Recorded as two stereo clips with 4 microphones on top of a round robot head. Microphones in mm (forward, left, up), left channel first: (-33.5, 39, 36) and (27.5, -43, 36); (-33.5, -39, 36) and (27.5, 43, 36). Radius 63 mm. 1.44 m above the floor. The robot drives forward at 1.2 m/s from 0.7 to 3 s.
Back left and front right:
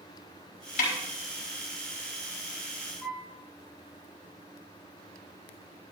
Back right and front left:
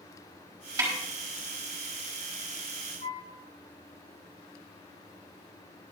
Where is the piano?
155° right, 3.5 m.